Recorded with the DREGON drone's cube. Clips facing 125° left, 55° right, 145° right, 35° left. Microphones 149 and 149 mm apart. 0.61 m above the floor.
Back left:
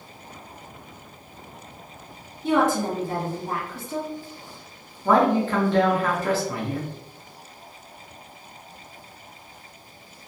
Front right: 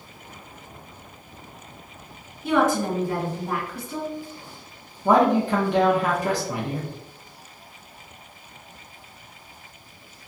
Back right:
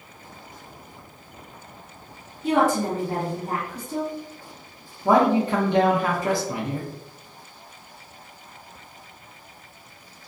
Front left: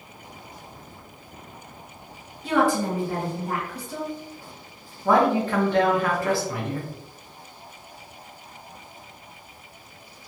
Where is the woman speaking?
Straight behind, 1.7 m.